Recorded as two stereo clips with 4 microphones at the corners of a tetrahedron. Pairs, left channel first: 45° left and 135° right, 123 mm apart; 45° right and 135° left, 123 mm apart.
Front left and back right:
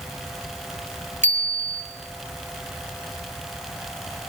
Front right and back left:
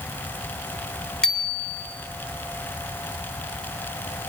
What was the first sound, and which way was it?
A bicycle bell, 130° right.